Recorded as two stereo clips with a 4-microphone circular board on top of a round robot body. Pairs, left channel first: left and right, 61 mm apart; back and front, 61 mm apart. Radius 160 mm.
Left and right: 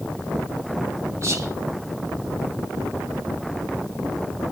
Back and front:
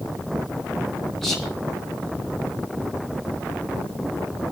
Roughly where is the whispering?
Right.